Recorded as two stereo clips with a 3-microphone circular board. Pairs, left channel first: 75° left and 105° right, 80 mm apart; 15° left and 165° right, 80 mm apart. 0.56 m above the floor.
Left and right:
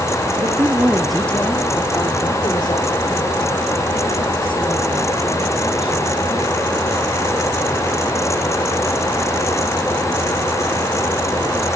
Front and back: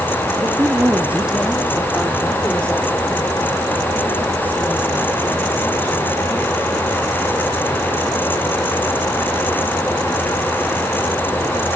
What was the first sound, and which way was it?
A man speaking, 120° right.